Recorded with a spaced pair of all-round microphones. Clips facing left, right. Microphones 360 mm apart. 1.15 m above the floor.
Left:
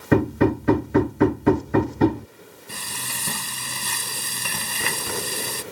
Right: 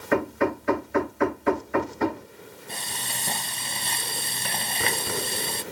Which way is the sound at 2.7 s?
15° left (ahead or behind).